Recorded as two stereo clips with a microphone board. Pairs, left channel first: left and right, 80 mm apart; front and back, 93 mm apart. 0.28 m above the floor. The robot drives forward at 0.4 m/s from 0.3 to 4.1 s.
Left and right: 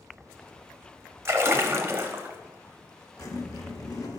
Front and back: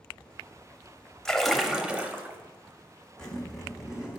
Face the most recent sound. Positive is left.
turn(degrees=100)